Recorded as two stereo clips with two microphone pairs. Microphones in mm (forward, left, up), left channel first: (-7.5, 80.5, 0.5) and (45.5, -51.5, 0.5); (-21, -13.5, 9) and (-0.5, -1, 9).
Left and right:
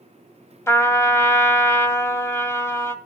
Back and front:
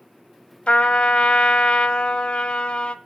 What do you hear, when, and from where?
0.7 s a trumpet: straight behind, 0.8 m